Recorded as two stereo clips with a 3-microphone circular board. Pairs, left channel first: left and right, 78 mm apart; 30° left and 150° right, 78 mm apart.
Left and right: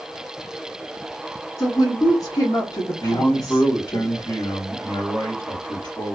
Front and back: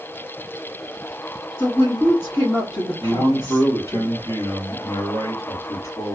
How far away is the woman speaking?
About 1.5 m.